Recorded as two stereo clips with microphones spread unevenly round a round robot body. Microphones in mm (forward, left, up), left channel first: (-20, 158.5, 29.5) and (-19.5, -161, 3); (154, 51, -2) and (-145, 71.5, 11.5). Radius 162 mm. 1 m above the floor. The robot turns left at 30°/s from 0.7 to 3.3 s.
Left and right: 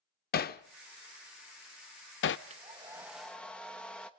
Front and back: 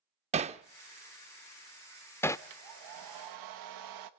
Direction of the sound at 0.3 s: 125° left.